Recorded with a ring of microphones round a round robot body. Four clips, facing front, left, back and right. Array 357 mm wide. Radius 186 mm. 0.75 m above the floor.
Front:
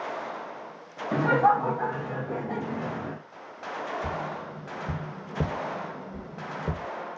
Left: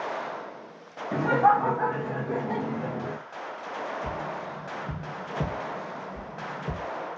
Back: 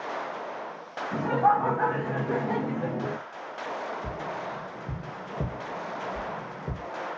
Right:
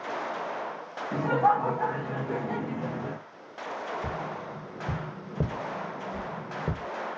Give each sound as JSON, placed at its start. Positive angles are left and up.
{"t": 1.1, "sound": "laughter", "azimuth_deg": 15, "distance_m": 0.6}
{"t": 4.0, "sound": "tapping", "azimuth_deg": -55, "distance_m": 0.8}